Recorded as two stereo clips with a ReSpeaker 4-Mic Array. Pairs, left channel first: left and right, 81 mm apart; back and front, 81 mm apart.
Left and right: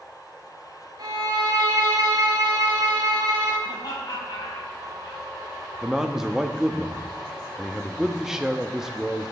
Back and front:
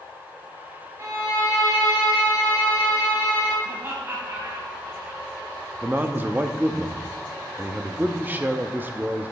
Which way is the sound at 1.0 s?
55° right.